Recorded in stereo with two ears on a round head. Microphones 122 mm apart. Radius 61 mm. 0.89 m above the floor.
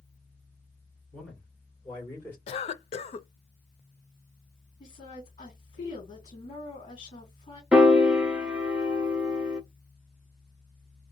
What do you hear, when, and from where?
1.1 s a man speaking: 5° left (ahead or behind), 3 m; by 2.4 s 20° left (ahead or behind), 2.5 m
2.5 s a cough: 45° left (ahead or behind), 0.5 m
4.8 s a woman speaking: 35° left (ahead or behind), 2.5 m
7.7 s a piano: 5° right (ahead or behind), 0.5 m